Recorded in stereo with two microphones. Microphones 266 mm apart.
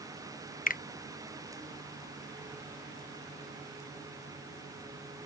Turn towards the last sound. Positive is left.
turn(degrees=30)  # may be behind; listen again after turning